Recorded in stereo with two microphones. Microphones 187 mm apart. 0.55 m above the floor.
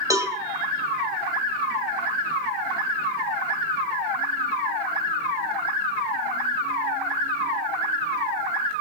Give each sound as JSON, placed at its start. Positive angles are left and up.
{"t": 0.1, "sound": "a cowbell", "side_deg": -20, "distance_m": 3.0}